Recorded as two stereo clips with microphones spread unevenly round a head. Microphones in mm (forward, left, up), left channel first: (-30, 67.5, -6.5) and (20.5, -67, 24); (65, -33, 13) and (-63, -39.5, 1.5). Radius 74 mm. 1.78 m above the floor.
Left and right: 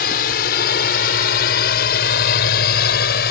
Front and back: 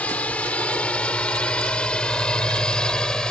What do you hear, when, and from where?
0.0 s a drone: 85° left; by 3.3 s 90° left